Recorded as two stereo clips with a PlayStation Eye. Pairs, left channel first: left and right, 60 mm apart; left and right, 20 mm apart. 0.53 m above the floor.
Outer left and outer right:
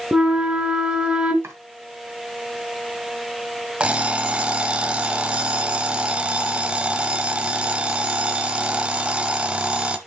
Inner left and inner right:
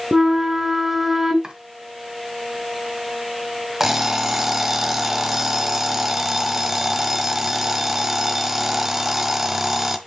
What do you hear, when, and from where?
0.1 s a flute: 15° right (ahead or behind), 1.2 m
1.4 s chopping: 50° right (ahead or behind), 2 m
3.8 s an alarm clock: 20° right (ahead or behind), 1.1 m